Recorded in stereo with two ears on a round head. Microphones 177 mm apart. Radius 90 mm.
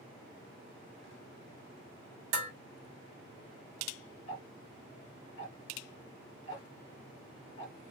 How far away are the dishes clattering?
About 1.4 m.